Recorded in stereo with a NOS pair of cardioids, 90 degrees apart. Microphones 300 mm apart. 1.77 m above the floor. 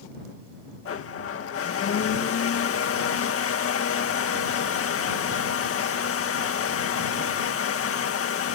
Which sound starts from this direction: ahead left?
A blender, at 0.8 s.